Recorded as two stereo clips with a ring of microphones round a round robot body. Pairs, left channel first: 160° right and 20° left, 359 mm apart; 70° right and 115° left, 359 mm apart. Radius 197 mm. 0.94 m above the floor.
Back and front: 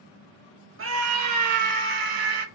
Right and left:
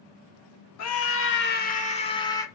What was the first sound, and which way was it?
A scream, 30° right.